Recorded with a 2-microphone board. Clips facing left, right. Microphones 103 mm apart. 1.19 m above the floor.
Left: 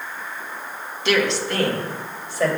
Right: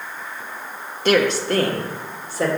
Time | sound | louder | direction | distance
1.1 | a woman speaking | right 3 dB | 45° right (ahead or behind) | 1.3 m